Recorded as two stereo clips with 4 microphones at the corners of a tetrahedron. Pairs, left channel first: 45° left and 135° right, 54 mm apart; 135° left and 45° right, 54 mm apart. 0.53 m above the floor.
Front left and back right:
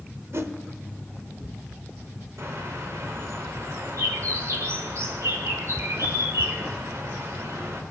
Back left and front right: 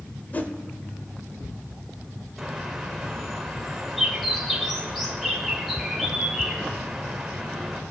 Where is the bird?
135° right, 2.0 m.